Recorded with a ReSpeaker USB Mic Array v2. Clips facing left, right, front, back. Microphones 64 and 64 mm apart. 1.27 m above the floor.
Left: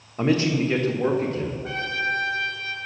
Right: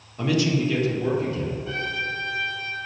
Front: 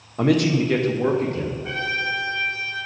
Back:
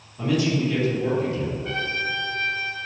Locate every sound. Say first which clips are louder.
0.2 s a man speaking: left 1 dB, front 4 dB; 30° left, 1.1 m; by 1.5 s 45° left, 1.9 m
1.6 s a trumpet: left 2 dB, front 2 dB; 80° left, 2.5 m